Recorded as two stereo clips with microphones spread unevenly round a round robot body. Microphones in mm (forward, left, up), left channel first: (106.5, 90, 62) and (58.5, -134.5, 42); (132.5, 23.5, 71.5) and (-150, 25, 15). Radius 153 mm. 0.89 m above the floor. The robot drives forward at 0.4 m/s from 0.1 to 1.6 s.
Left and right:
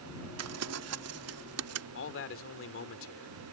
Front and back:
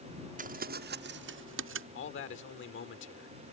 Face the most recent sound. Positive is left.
turn(degrees=50)